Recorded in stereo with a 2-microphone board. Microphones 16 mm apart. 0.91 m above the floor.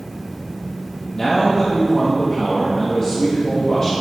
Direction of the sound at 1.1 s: 45° left (ahead or behind).